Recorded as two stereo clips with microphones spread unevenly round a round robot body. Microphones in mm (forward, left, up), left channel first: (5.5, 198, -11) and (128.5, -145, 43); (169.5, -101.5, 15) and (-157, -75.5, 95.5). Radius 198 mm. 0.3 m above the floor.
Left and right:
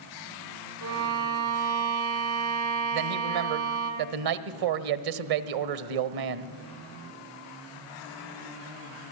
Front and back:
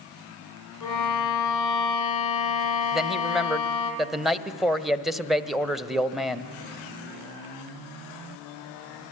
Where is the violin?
25° right, 4.5 m.